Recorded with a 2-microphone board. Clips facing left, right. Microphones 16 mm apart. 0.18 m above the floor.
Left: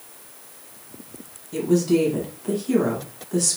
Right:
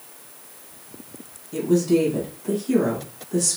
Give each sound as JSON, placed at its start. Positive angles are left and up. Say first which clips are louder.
{"t": 1.5, "sound": "a woman speaking", "louder": "even", "side_deg": 15, "distance_m": 1.1}